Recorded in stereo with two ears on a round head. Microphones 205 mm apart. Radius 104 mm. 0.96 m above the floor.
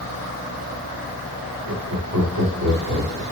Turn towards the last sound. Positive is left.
turn(degrees=-70)  # may be behind; listen again after turning